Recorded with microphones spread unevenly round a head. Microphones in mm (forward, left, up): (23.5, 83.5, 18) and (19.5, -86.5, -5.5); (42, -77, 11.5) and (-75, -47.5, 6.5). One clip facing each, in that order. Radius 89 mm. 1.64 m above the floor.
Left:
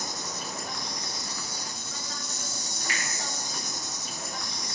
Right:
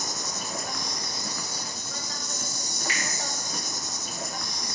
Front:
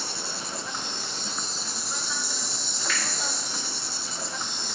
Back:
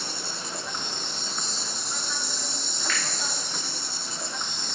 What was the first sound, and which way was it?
An insect, 105° right.